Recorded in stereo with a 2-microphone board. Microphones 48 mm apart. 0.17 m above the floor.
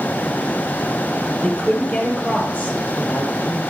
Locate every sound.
1.4 s a woman speaking: 25° left (ahead or behind), 3 m; by 3.6 s 50° left (ahead or behind), 4 m